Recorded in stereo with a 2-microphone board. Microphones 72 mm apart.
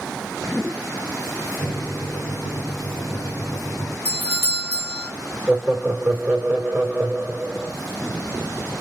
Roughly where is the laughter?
Centre.